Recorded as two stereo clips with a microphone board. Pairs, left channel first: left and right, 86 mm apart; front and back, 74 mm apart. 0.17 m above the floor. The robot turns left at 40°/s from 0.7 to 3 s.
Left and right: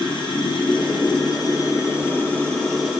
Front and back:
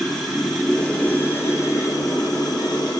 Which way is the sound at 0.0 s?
85° left.